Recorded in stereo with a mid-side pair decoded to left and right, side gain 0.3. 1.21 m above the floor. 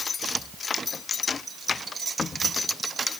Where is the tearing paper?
No tearing paper in this recording.